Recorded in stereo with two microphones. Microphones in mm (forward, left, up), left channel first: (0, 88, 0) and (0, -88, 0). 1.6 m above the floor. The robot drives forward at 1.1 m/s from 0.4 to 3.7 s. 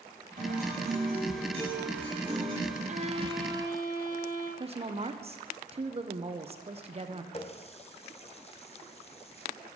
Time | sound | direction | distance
0.4 | a guitar | 45° right (ahead or behind) | 3.5 m
2.9 | a violin | 45° right (ahead or behind) | 0.5 m
4.6 | a woman speaking | 35° right (ahead or behind) | 0.8 m
7.3 | a running tap | 40° left (ahead or behind) | 0.7 m